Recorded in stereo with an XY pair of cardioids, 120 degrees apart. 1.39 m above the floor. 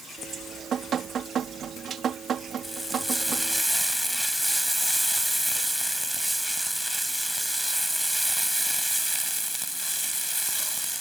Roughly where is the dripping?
Ahead right.